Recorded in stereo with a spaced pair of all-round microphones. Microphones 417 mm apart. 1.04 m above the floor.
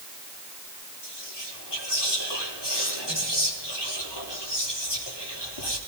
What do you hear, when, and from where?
1.0 s whispering: 70° left (ahead or behind), 3.5 m